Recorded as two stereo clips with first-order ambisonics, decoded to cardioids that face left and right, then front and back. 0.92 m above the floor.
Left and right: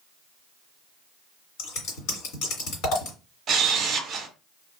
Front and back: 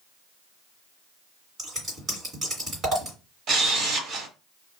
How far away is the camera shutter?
About 0.9 m.